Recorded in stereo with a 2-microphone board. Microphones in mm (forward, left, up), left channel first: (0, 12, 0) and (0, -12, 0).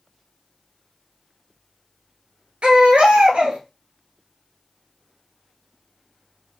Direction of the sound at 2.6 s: 60° right (ahead or behind).